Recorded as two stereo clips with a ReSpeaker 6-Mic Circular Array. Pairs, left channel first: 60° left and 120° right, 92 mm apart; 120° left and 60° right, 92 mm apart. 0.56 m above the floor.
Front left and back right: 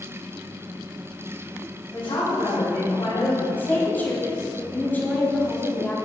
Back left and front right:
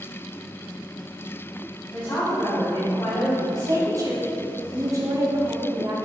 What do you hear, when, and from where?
1.9 s a woman speaking: 60° left, 4 m
3.6 s a woman speaking: 10° right, 3 m